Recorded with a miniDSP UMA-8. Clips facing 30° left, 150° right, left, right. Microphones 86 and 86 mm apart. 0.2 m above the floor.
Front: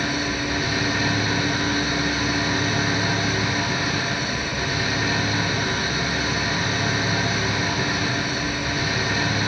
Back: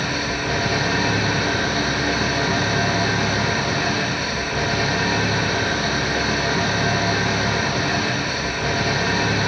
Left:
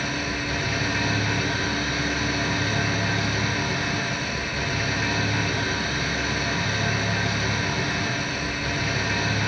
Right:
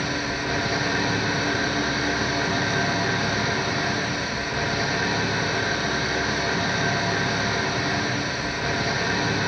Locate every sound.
0.0 s an engine running: 135° right, 6.5 m